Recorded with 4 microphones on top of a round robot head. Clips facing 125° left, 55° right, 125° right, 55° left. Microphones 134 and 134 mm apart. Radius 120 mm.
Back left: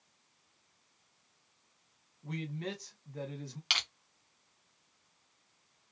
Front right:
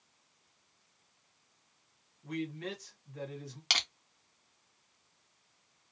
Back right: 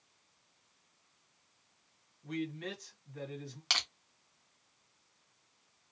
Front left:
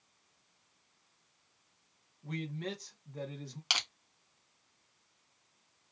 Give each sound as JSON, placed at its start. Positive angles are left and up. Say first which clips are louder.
{"t": 2.2, "sound": "a man speaking", "louder": "front right 2 dB, back right 1 dB", "azimuth_deg": 85, "distance_m": 1.4}
{"t": 3.7, "sound": "crushing", "louder": "front right 4 dB, front left 1 dB", "azimuth_deg": -20, "distance_m": 0.8}